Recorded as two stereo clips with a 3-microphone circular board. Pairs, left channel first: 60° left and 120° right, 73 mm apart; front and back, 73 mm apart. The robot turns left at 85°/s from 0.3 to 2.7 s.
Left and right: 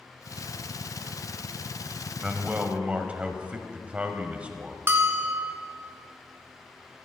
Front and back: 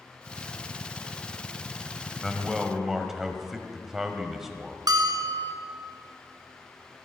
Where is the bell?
175° right, 1.2 m.